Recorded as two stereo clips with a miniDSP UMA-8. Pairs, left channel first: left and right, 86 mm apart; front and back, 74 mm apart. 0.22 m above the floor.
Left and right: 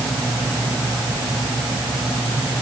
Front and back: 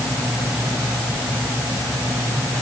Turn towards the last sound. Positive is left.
No sound to turn to.